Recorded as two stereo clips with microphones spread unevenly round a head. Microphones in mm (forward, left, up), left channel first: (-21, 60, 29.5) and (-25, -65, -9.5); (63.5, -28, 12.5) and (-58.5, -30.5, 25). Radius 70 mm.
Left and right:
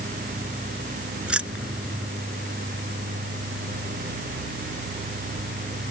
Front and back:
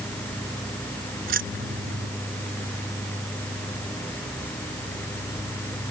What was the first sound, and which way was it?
Keys jangling, 175° right.